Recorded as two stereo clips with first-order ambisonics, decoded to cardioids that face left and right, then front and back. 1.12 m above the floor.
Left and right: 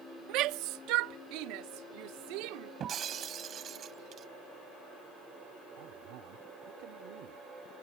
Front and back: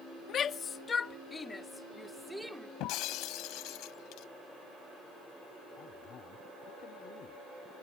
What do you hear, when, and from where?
0.3 s a shout: 55° right; by 2.7 s 95° right
2.8 s breaking glass: 30° right
5.8 s a man speaking: 60° right